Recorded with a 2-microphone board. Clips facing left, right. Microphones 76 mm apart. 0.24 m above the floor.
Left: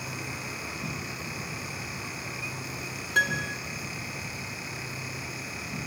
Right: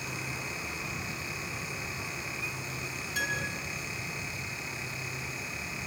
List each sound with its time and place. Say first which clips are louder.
0.0 s an insect: left 1 dB; 75° left (ahead or behind), 5.5 m
3.1 s a piano: left 7 dB; 55° left (ahead or behind), 3.5 m